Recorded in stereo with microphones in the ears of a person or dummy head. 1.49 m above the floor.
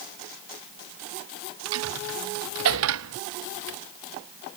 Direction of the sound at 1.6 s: 80° right.